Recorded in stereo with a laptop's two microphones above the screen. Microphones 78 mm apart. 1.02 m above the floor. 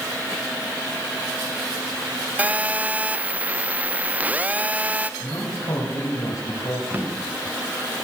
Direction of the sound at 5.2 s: 55° left (ahead or behind).